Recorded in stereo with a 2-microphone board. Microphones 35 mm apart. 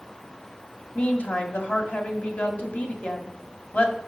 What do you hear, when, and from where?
0.9 s a woman speaking: 40° left (ahead or behind), 2 m